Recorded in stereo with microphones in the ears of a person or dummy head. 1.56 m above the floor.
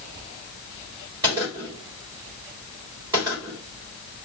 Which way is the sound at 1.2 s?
20° right (ahead or behind).